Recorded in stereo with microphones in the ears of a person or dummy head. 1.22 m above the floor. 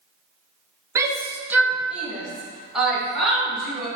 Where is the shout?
15° right (ahead or behind), 0.7 m; by 3.9 s centre (ahead or behind), 2.5 m.